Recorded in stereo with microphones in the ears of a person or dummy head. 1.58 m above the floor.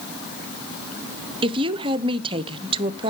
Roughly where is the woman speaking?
Right.